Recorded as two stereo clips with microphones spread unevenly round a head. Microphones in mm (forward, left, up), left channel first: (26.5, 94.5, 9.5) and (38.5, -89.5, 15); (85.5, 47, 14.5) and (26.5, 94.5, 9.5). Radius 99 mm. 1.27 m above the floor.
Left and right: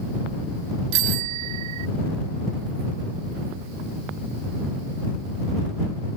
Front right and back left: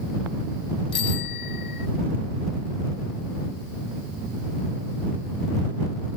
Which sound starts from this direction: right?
A bicycle bell, at 0.9 s.